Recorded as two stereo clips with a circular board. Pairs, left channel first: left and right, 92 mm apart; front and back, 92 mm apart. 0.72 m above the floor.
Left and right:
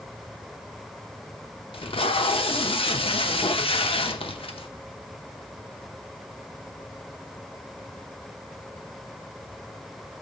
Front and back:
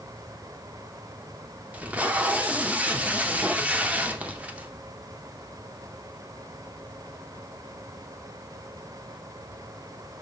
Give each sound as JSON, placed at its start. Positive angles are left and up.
{"t": 1.7, "sound": "tape being pulled", "azimuth_deg": 105, "distance_m": 0.7}